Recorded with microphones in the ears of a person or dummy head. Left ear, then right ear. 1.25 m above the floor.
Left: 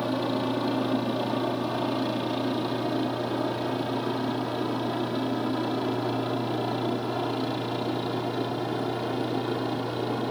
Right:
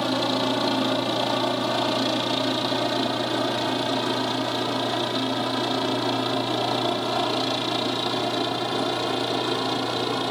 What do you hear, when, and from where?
0.0 s a helicopter: 35° right (ahead or behind); by 10.3 s 40° right (ahead or behind)